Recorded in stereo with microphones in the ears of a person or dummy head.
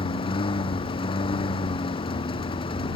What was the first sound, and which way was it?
A lawn mower, 25° left (ahead or behind).